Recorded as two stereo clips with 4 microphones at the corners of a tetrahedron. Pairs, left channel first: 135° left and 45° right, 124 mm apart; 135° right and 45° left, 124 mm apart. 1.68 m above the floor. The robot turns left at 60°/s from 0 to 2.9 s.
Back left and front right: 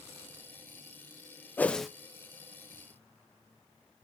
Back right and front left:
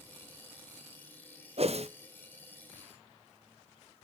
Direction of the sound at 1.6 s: 60° left.